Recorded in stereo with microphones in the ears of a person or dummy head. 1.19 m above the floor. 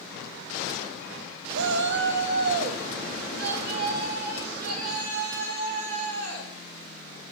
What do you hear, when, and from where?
1.6 s a shout: 65° right (ahead or behind), 0.7 m; by 6.5 s 45° right (ahead or behind), 3 m